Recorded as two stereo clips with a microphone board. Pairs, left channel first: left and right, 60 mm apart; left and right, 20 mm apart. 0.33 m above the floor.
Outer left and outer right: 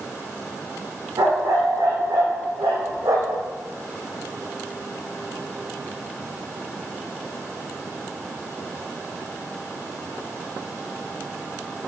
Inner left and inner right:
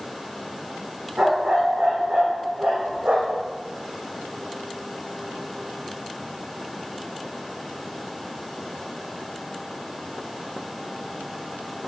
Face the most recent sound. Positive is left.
turn(degrees=-80)